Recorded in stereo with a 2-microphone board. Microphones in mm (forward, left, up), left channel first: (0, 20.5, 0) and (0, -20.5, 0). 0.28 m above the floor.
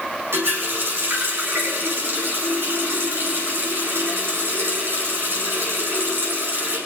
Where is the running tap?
80° right, 9 m.